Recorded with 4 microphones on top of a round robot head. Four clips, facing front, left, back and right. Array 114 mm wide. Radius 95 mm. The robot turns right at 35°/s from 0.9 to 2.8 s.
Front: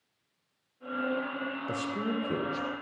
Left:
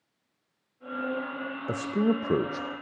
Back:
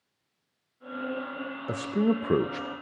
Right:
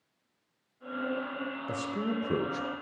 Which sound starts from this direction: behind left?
A man speaking, at 1.7 s.